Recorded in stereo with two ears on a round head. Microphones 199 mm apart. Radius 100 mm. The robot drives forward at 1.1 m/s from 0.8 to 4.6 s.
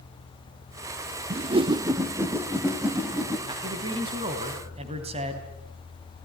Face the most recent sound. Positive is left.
turn(degrees=-25)  # may be behind; listen again after turning